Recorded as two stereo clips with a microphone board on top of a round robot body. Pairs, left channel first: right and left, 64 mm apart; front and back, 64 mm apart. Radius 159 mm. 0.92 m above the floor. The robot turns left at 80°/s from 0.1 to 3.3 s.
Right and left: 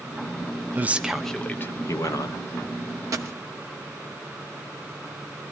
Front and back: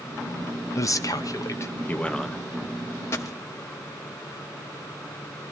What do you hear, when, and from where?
0.8 s a man speaking: 30° left, 1.7 m; by 2.4 s 100° right, 1.7 m
3.1 s a dropped coin: 50° left, 0.8 m; by 3.4 s 35° left, 0.8 m